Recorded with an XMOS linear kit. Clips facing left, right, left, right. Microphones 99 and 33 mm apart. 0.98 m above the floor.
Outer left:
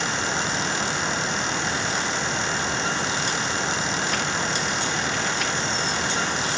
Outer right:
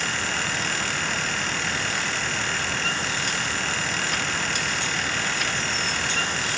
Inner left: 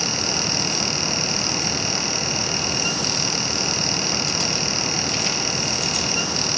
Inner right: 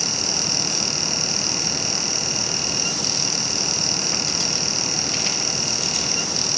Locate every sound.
Only background noise.